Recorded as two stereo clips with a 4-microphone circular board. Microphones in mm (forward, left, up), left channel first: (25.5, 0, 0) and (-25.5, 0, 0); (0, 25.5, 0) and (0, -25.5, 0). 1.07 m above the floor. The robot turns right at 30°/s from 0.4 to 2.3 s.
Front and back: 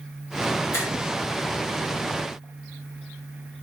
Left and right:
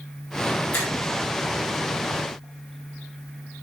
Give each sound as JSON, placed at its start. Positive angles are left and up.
{"t": 0.7, "sound": "a finger snap", "azimuth_deg": 40, "distance_m": 7.0}